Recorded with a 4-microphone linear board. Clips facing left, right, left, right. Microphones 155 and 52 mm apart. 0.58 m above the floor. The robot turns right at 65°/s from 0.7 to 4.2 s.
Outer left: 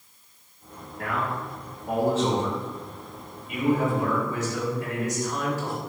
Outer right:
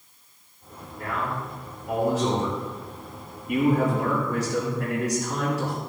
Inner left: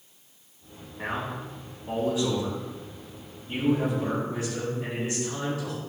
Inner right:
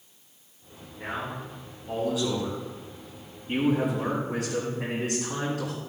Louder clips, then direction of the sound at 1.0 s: Outer left 1 dB, inner left 2 dB; 75° left.